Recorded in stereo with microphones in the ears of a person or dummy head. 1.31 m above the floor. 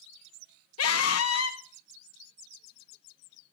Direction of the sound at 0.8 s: 65° left (ahead or behind).